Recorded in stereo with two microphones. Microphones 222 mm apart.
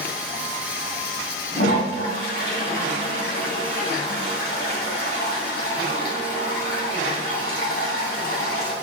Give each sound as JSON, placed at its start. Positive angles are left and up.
{"t": 1.6, "sound": "a toilet flushing", "side_deg": 50, "distance_m": 2.5}